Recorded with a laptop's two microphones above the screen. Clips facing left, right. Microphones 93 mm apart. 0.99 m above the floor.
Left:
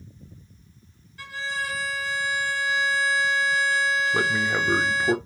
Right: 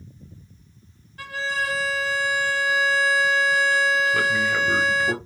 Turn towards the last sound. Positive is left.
turn(degrees=25)  # may be behind; listen again after turning